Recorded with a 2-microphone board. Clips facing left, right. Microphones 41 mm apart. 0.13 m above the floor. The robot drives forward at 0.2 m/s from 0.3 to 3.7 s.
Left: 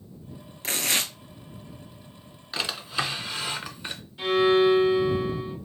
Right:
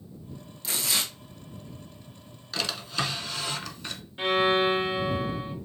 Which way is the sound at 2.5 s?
20° left (ahead or behind).